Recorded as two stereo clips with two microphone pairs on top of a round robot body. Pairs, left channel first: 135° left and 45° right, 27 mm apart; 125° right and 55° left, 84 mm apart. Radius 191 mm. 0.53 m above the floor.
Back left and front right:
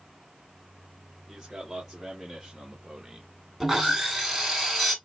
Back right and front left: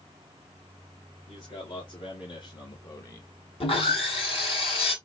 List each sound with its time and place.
1.3 s a man speaking: 110° right, 2.5 m; by 3.3 s 65° right, 1.2 m
3.6 s sawing: 125° right, 1.9 m